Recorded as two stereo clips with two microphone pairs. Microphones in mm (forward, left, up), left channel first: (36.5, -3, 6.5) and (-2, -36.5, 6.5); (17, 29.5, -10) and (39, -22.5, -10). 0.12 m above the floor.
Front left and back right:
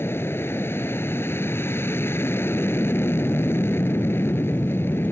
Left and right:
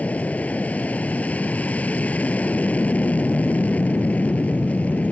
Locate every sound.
0.0 s an aircraft: 55° left